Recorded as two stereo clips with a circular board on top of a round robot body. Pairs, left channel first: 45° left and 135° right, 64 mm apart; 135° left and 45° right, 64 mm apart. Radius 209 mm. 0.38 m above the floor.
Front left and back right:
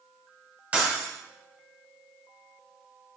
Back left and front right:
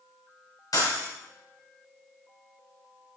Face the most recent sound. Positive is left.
turn(degrees=155)